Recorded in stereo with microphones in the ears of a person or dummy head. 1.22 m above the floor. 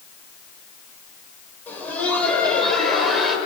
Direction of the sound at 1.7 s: 15° left (ahead or behind).